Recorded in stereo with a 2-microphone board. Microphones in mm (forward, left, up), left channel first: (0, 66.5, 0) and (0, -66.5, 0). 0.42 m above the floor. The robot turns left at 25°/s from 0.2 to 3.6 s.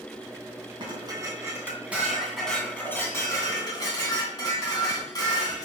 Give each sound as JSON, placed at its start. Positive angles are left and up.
{"t": 0.8, "sound": "dishes clattering", "azimuth_deg": -145, "distance_m": 2.5}